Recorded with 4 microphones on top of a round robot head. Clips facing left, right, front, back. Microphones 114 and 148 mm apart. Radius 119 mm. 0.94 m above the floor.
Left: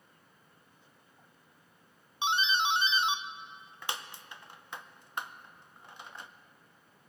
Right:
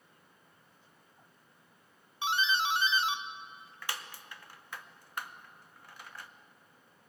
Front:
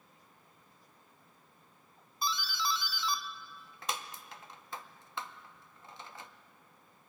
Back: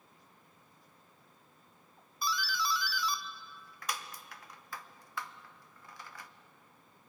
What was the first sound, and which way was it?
A doorbell, 45° left.